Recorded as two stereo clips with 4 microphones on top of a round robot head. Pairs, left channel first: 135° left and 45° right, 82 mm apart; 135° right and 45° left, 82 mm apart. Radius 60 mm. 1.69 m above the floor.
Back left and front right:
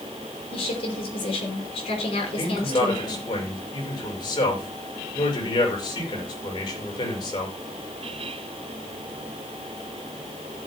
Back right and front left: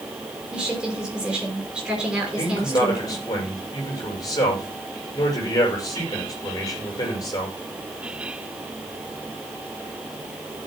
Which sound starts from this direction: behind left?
A woman speaking, at 0.5 s.